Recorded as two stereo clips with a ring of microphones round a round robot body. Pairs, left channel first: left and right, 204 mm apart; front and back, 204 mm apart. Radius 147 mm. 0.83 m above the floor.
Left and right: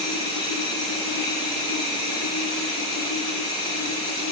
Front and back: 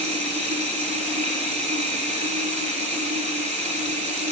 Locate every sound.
0.0 s running water: 120° left, 4 m